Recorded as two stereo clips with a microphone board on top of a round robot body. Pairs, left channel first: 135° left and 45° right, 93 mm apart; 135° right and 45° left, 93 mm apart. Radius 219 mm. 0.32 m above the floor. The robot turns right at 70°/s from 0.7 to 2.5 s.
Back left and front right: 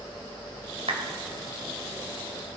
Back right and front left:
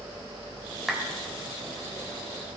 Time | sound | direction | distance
0.9 | a clap | 45° right | 2 m